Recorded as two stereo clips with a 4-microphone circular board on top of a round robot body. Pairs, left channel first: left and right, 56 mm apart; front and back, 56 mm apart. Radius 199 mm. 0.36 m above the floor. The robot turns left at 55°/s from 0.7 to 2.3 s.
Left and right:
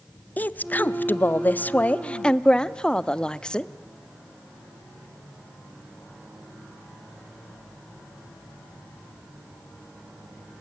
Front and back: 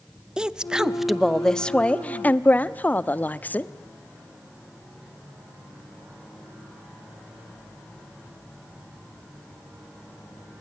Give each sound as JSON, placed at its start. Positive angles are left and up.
{"t": 0.4, "sound": "a woman speaking", "azimuth_deg": 115, "distance_m": 0.9}